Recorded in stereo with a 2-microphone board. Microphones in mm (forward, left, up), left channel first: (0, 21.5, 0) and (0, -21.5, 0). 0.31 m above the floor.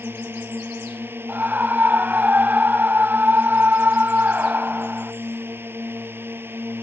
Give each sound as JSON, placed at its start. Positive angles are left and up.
{"t": 0.0, "sound": "a drone", "side_deg": -60}
{"t": 1.3, "sound": "a scream", "side_deg": -45}